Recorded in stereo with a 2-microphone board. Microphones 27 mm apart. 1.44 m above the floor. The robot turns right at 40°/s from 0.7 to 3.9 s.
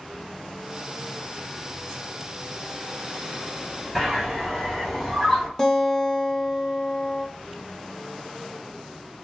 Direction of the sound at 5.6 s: 15° left (ahead or behind).